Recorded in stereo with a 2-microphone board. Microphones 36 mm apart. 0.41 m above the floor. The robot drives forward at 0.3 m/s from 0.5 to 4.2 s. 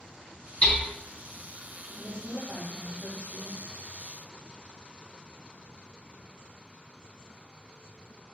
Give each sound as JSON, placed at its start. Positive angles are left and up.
{"t": 0.6, "sound": "hammering", "side_deg": 40, "distance_m": 0.7}
{"t": 1.9, "sound": "a woman speaking", "side_deg": 35, "distance_m": 1.3}